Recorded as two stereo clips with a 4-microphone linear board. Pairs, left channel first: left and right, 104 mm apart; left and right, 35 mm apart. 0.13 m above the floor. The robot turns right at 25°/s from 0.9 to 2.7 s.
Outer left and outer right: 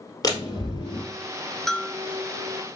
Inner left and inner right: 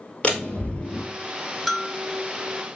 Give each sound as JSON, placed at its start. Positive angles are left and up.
{"t": 0.2, "sound": "a door slam", "side_deg": 35, "distance_m": 2.0}
{"t": 1.7, "sound": "a bell", "side_deg": 5, "distance_m": 0.7}